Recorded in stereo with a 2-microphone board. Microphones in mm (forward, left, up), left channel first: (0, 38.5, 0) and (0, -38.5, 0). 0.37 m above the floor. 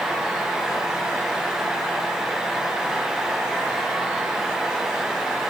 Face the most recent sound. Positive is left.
No sound to turn to.